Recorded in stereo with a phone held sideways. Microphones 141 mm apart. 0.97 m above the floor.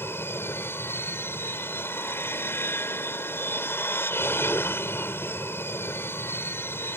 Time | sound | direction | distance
0.0 | an aircraft | 15° left (ahead or behind) | ?